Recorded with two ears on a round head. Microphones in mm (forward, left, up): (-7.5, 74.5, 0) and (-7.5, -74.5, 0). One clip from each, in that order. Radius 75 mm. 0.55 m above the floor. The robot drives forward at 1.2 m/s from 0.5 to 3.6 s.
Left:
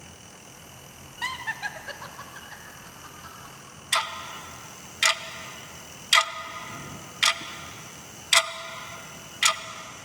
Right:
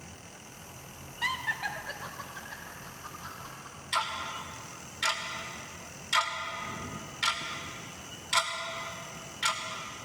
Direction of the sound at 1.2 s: 15° left (ahead or behind).